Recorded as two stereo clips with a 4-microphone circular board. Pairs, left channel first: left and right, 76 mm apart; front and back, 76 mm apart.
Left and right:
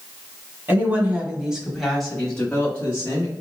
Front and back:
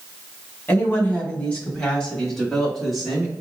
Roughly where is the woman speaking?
Ahead right.